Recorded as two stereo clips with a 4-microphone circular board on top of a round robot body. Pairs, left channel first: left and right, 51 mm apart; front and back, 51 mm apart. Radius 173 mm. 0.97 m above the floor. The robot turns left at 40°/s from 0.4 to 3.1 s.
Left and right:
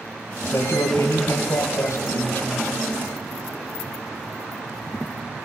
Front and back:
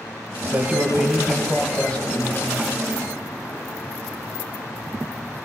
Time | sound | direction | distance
0.4 | a man speaking | 125° left | 1.2 m